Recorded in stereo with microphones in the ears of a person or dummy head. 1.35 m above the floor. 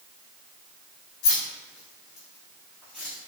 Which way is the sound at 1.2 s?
50° left (ahead or behind).